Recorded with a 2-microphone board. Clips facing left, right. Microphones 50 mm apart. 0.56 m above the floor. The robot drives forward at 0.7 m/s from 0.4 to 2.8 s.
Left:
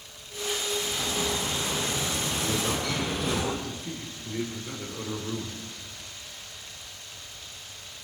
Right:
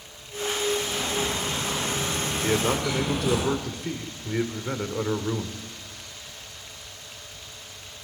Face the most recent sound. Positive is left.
turn(degrees=-60)  # may be behind; listen again after turning